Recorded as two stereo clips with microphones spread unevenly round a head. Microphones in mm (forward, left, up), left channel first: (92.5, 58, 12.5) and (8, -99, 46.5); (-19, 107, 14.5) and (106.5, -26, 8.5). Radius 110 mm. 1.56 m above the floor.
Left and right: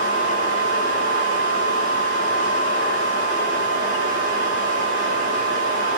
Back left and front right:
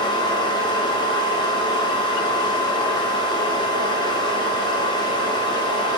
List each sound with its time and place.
0.0 s a fan: 65° left, 1.1 m